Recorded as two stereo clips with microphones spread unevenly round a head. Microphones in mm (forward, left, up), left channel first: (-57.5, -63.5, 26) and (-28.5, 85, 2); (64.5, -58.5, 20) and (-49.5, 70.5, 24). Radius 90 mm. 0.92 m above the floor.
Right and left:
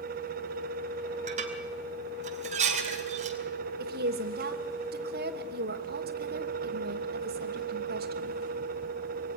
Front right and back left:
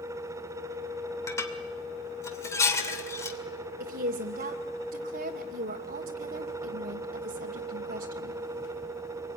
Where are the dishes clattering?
25° left, 2.5 m.